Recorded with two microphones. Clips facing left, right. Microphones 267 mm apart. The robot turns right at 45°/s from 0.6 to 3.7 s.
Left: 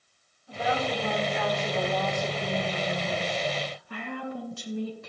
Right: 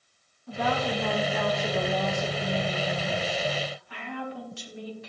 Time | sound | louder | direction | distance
0.5 | a woman speaking | right 1 dB | 85° right | 1.4 m